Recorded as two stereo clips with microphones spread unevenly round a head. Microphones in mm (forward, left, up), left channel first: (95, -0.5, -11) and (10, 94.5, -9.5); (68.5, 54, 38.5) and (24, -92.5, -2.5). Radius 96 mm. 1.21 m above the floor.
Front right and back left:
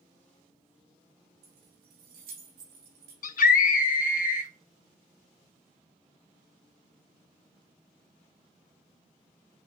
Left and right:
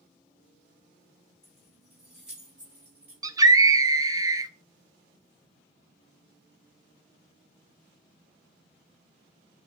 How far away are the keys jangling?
About 1.7 m.